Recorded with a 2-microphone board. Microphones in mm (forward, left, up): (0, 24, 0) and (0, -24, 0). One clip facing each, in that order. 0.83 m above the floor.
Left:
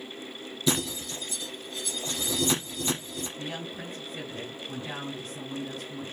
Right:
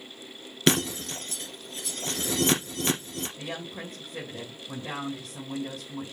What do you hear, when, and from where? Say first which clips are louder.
0.7 s breaking glass: right 4 dB; 75° right (ahead or behind), 3.5 m
3.4 s a woman speaking: even; 80° right, 3.5 m